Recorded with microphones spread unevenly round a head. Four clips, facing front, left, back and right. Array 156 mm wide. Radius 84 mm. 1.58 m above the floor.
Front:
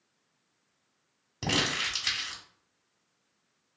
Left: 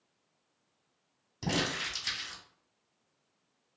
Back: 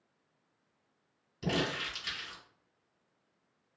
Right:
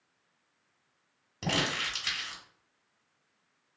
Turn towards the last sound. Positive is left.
turn(degrees=-15)